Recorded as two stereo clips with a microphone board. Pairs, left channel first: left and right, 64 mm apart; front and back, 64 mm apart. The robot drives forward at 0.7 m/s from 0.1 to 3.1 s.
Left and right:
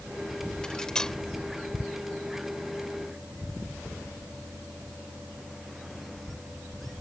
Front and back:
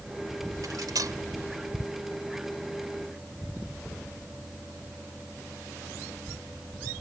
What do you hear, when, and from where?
0.6 s cutlery clinking: 165° left; by 1.2 s 170° left